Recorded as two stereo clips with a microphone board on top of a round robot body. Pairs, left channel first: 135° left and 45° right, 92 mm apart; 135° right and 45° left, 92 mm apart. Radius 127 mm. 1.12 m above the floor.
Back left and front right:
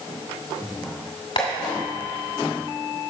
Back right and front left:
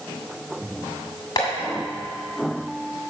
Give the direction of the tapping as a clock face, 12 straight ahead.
6 o'clock.